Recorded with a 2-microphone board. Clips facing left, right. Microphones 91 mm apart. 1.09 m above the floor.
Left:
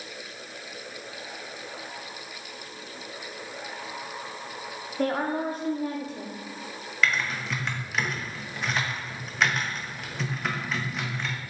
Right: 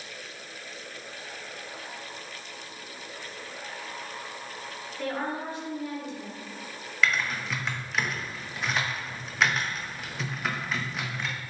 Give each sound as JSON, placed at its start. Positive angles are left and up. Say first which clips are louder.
{"t": 5.0, "sound": "a woman speaking", "louder": "left 5 dB", "side_deg": 45, "distance_m": 0.7}
{"t": 7.0, "sound": "typing on a keyboard", "louder": "even", "side_deg": 0, "distance_m": 0.6}